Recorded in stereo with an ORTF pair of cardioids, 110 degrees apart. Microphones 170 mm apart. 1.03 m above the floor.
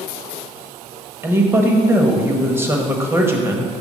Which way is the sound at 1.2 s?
15° right.